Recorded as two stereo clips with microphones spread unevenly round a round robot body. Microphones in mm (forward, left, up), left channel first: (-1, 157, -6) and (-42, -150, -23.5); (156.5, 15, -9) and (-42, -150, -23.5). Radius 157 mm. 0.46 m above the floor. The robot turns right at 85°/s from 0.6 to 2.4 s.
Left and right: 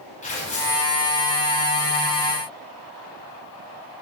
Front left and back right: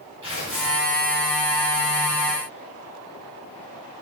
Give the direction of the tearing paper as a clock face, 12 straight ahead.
7 o'clock.